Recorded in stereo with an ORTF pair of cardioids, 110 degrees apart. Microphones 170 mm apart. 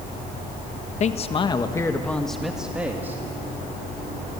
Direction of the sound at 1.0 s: 45° left.